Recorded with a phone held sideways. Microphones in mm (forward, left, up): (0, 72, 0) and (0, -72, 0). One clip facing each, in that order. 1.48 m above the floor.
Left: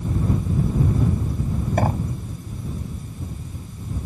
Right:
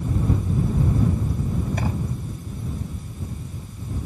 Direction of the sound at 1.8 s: 50° left (ahead or behind).